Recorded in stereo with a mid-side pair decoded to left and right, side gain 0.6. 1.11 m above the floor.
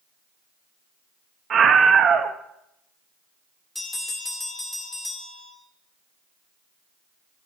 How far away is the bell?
About 3 m.